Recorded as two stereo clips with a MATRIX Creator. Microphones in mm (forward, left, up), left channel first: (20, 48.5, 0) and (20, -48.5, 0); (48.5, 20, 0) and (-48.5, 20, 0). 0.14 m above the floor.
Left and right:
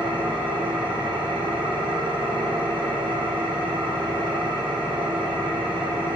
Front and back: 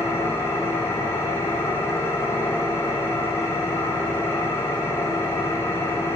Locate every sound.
0.0 s an engine running: 65° right, 5 m